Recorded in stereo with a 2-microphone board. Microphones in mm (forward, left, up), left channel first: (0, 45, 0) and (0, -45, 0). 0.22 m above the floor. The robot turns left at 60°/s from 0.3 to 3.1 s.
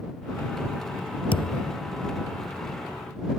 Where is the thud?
75° left (ahead or behind); by 1.7 s 50° left (ahead or behind).